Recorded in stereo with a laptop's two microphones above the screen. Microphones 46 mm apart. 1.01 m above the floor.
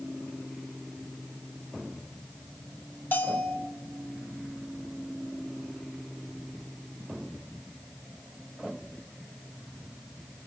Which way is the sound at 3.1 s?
50° left (ahead or behind).